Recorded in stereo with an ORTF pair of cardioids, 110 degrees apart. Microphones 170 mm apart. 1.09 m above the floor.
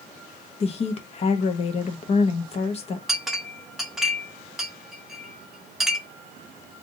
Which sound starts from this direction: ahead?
A clink, at 3.1 s.